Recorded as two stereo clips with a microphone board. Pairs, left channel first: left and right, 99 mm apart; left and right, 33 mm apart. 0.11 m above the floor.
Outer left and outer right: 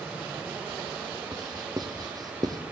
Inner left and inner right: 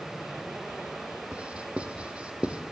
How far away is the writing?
About 2.5 m.